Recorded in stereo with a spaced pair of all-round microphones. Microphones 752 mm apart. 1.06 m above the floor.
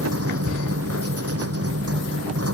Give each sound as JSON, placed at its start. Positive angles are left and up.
{"t": 0.0, "sound": "a machine running", "side_deg": -20}